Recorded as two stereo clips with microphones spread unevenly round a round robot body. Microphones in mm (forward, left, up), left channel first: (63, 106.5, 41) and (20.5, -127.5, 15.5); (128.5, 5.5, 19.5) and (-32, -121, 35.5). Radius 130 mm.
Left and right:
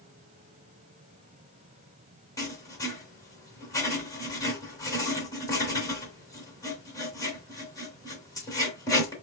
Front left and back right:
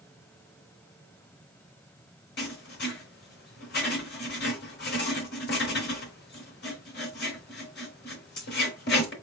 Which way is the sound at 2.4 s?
5° left.